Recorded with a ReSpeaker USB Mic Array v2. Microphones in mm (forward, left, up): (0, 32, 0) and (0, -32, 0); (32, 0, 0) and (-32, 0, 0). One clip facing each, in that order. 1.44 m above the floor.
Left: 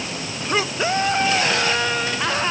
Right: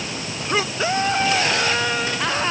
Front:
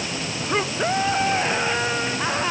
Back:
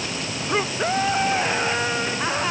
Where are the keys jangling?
No keys jangling in this recording.